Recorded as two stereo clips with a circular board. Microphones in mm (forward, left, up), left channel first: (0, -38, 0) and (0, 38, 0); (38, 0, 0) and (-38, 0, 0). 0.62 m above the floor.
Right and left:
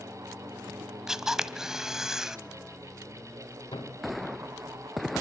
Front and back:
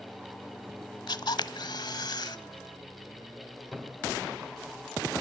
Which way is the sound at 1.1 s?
5° left.